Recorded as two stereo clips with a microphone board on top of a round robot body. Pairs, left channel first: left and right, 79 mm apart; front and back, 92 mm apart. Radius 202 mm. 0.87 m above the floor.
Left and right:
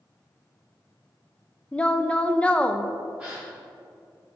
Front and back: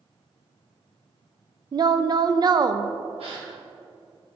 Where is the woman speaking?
160° left, 0.5 m.